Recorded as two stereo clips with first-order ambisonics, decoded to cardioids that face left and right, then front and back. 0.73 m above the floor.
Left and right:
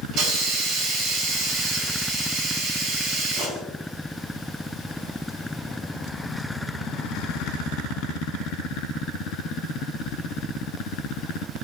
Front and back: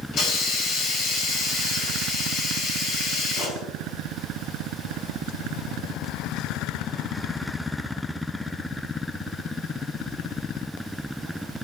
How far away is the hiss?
About 2.5 m.